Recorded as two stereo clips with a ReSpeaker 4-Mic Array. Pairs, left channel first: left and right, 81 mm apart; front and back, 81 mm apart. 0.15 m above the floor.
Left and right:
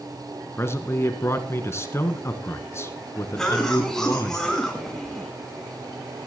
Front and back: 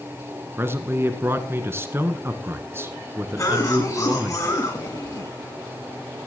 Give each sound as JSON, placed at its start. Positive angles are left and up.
{"t": 0.6, "sound": "a man speaking", "azimuth_deg": 130, "distance_m": 1.5}
{"t": 3.4, "sound": "a cough", "azimuth_deg": 10, "distance_m": 1.9}